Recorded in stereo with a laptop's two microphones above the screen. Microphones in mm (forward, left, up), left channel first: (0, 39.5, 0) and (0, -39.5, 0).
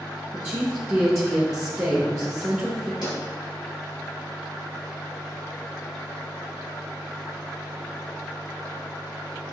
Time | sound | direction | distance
0.3 | a woman speaking | 35° right (ahead or behind) | 0.9 m
3.0 | a pop | 70° left (ahead or behind) | 1.9 m